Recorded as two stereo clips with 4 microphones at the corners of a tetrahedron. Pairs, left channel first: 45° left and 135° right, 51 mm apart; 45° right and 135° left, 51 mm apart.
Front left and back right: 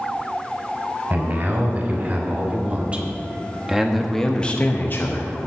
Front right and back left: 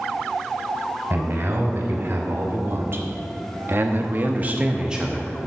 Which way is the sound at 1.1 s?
Straight behind.